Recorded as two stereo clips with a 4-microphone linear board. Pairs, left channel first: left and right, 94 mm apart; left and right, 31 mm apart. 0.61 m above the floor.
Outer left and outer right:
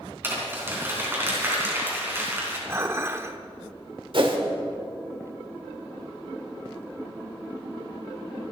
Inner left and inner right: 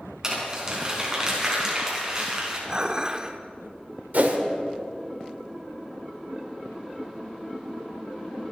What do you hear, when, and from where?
0.2 s crumpling: 25° right (ahead or behind), 4.5 m
2.7 s dishes clattering: 25° right (ahead or behind), 1.0 m
4.1 s a whoosh: 60° right (ahead or behind), 1.7 m